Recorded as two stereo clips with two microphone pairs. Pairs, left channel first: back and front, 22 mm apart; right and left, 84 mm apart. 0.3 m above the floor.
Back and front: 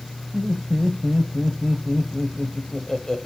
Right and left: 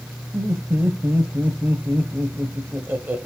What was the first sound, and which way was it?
Laughter, 135° left.